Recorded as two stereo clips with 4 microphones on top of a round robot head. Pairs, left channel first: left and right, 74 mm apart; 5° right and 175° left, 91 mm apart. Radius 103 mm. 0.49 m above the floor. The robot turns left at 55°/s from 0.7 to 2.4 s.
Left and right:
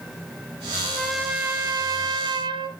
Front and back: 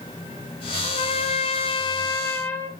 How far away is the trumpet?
About 1.3 m.